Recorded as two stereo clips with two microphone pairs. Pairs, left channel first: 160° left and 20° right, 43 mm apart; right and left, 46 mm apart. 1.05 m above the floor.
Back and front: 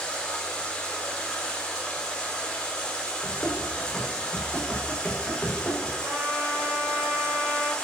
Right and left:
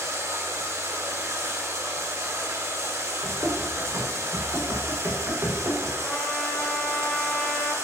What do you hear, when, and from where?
0.0 s running water: 90° left, 3.5 m
3.2 s running footsteps: 90° left, 8 m; by 5.9 s 100° left, 8 m
6.0 s a trumpet: 10° right, 4.5 m